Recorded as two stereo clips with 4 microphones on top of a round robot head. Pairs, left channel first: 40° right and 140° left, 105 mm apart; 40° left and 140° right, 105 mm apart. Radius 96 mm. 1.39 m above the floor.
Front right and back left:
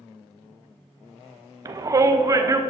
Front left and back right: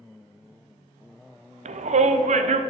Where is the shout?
155° right, 0.8 m.